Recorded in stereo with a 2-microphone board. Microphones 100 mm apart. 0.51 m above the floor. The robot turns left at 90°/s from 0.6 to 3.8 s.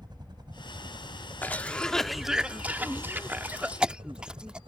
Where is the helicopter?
45° right (ahead or behind); by 4.7 s 60° right (ahead or behind).